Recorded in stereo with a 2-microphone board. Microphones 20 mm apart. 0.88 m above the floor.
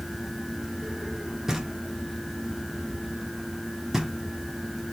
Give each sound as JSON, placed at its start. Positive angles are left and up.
{"t": 1.5, "sound": "knocking", "side_deg": -20, "distance_m": 1.3}